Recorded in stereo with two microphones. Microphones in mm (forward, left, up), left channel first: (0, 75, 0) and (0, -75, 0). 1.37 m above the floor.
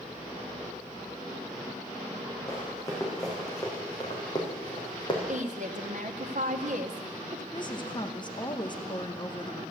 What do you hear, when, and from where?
2.5 s running footsteps: 20° left (ahead or behind), 5 m; by 5.2 s 30° left (ahead or behind), 3.5 m
5.3 s a woman speaking: 55° right (ahead or behind), 1.1 m
7.5 s a woman speaking: 30° left (ahead or behind), 0.9 m